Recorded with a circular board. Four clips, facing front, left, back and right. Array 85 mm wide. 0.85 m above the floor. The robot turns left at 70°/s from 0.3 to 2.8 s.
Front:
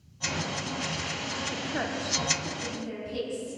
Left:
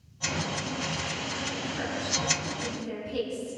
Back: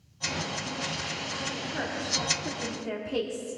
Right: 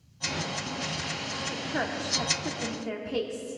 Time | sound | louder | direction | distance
1.5 | a woman speaking | right 5 dB, front 3 dB | 45° right | 1.9 m